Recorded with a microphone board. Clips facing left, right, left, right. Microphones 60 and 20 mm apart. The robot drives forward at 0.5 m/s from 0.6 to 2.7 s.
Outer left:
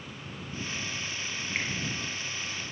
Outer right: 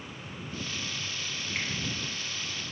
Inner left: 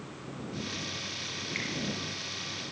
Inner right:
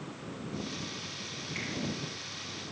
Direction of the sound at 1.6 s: 30° left (ahead or behind).